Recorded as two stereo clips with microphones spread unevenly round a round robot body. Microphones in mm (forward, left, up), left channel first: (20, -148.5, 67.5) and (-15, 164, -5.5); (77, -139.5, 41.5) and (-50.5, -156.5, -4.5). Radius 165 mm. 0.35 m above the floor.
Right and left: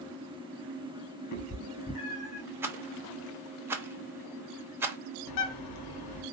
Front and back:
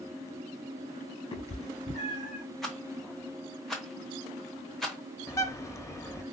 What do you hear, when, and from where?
1.3 s a cat meowing: 40° right, 1.5 m; by 2.4 s 10° right, 1.8 m
2.6 s a rattle: 135° left, 0.7 m
5.3 s a bird: 70° right, 0.9 m